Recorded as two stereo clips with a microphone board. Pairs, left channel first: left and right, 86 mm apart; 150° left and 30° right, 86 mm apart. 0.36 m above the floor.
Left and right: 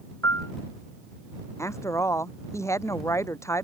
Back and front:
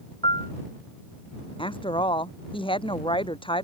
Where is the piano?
150° left.